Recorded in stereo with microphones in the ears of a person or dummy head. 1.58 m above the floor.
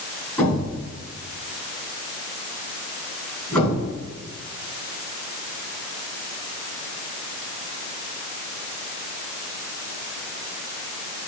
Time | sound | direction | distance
0.4 | a thud | 10° left (ahead or behind) | 4.5 m